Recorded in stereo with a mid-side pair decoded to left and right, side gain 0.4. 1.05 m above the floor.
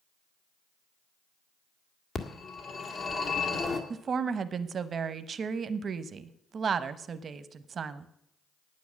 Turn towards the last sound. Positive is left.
turn(degrees=-50)